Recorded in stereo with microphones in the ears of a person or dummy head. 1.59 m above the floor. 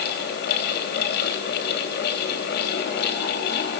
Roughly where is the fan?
Left.